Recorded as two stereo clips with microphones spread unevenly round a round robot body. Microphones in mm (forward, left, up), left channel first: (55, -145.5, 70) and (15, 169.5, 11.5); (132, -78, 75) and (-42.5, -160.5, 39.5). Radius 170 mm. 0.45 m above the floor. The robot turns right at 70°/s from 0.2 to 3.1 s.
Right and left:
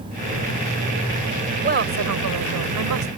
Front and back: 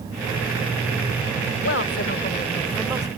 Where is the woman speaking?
40° left; by 3.1 s 140° left.